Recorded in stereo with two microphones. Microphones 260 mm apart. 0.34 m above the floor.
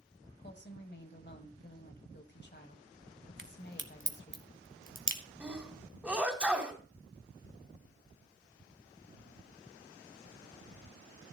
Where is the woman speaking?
40° left (ahead or behind), 1.7 m.